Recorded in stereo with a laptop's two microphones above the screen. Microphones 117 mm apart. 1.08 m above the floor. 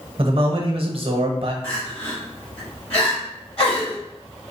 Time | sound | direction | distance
0.2 | a man speaking | 50° right (ahead or behind) | 0.8 m
1.6 | crying | 55° left (ahead or behind) | 1.6 m